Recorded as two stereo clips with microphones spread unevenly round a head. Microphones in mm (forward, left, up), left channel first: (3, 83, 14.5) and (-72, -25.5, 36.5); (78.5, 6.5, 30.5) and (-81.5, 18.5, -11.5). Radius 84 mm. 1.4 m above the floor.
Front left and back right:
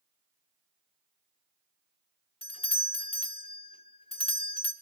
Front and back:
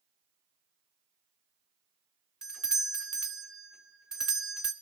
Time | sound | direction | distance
2.4 | a doorbell | 95° left | 2 m